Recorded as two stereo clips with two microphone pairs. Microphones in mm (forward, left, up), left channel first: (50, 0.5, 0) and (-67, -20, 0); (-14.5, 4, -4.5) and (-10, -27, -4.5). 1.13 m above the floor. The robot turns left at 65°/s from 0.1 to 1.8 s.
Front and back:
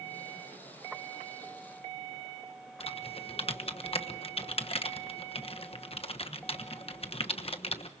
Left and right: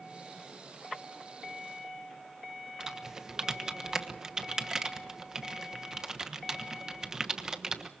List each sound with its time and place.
2.8 s typing on a keyboard: 15° right, 1.2 m